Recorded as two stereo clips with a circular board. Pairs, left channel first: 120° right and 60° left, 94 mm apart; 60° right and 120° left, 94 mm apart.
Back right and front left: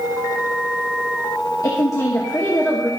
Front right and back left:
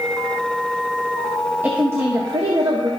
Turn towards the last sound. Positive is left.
turn(degrees=160)